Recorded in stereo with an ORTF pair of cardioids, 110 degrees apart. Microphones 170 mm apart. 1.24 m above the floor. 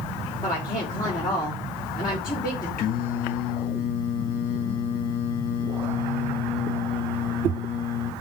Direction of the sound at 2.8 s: 60° left.